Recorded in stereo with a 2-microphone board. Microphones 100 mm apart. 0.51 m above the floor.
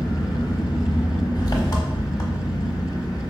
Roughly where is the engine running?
Left.